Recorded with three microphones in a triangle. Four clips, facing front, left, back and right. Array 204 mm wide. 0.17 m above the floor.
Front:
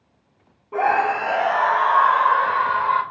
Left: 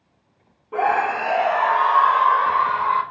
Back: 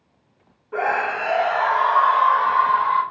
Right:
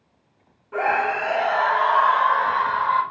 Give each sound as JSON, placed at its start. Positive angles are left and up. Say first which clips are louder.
{"t": 0.7, "sound": "a scream", "louder": "left 2 dB, front 3 dB", "azimuth_deg": 45, "distance_m": 1.1}